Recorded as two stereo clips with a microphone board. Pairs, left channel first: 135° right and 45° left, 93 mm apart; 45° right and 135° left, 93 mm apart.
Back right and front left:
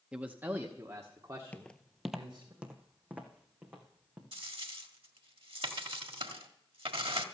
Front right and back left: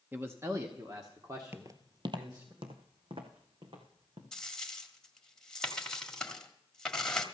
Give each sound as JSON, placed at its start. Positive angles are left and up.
{"t": 0.1, "sound": "a man speaking", "azimuth_deg": 110, "distance_m": 0.9}
{"t": 1.5, "sound": "footsteps", "azimuth_deg": 170, "distance_m": 0.7}
{"t": 4.3, "sound": "a dropped coin", "azimuth_deg": 35, "distance_m": 1.7}